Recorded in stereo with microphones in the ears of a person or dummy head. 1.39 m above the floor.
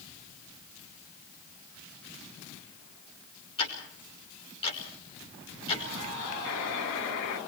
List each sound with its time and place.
3.6 s ticking: 35° left (ahead or behind), 5.5 m
6.5 s a buzzer: 75° left (ahead or behind), 2.5 m